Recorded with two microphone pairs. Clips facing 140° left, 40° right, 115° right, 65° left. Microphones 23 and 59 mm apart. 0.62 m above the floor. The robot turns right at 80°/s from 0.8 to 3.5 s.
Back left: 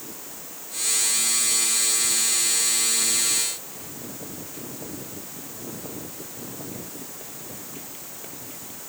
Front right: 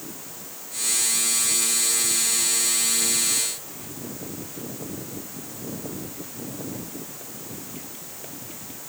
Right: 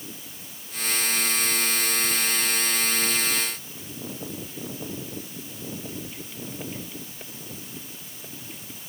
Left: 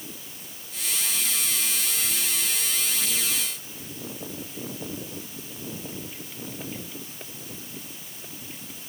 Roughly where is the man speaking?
No man speaking in this recording.